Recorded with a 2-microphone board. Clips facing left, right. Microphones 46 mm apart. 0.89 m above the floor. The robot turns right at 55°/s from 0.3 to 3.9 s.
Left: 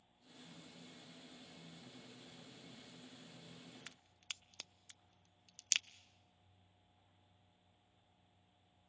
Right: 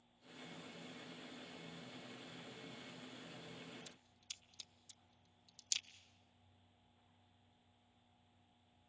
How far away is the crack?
About 0.5 m.